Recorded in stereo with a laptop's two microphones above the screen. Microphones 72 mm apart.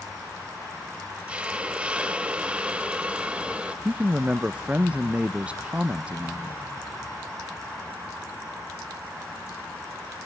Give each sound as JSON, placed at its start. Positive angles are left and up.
{"t": 1.3, "sound": "a hiss", "side_deg": -15, "distance_m": 0.9}
{"t": 3.9, "sound": "a man speaking", "side_deg": -15, "distance_m": 0.5}